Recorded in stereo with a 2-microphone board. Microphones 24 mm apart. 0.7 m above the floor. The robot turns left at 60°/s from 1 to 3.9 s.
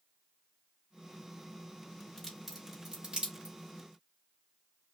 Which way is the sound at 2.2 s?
15° left (ahead or behind).